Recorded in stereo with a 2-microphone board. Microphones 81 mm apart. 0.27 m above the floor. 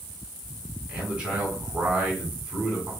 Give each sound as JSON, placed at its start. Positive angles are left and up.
{"t": 0.9, "sound": "a man speaking", "side_deg": -15, "distance_m": 1.9}